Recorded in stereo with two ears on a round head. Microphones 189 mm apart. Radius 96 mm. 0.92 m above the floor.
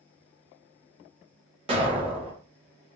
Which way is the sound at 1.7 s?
30° right (ahead or behind).